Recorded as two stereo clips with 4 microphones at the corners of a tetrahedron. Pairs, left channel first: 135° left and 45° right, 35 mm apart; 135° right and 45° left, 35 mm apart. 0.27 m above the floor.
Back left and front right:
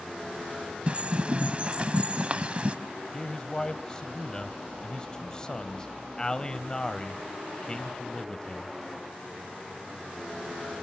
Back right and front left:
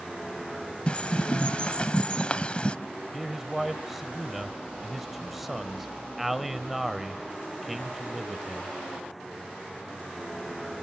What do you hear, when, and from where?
0.9 s a bird: 85° right, 0.9 m
3.1 s a man speaking: 125° left, 1.0 m